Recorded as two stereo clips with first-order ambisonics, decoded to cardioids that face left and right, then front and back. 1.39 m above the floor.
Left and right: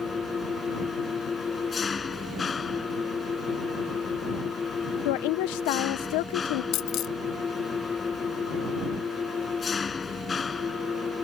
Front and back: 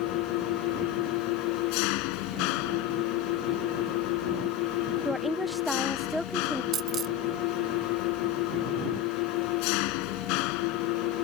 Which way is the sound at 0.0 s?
15° left.